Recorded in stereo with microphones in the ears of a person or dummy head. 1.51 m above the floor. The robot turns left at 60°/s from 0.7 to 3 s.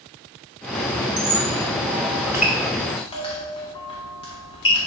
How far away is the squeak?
About 1.4 m.